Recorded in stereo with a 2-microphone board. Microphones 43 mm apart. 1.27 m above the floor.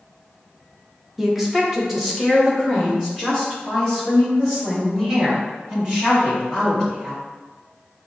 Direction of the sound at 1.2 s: 5° right (ahead or behind).